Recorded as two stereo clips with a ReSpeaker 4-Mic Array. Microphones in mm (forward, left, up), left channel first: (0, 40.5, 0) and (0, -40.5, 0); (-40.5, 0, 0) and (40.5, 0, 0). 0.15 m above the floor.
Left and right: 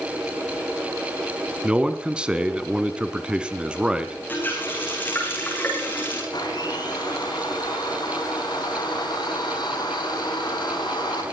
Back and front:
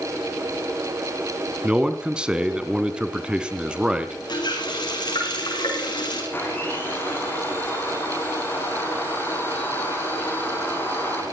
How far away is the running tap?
About 7.5 m.